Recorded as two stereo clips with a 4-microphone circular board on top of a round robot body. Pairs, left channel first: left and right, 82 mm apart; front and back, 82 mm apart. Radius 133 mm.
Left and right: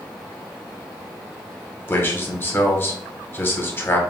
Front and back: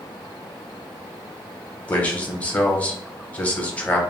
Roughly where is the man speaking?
Ahead left.